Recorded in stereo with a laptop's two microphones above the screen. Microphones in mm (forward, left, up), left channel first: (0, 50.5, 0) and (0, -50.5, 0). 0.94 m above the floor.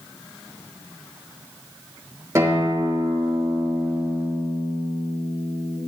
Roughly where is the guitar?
Right.